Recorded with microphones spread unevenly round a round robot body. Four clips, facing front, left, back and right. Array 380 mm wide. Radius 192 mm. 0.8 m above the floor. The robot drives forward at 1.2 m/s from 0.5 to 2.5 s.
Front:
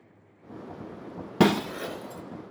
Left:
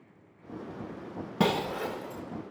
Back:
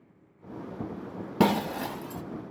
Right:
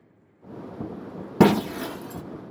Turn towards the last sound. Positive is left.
turn(degrees=-155)